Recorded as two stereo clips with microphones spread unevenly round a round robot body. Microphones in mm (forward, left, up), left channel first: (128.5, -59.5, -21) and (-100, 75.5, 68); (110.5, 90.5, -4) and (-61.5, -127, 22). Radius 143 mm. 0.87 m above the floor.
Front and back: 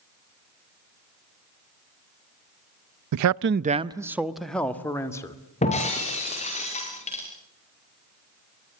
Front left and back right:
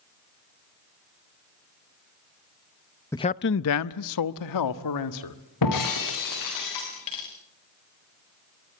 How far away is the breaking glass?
About 7.5 m.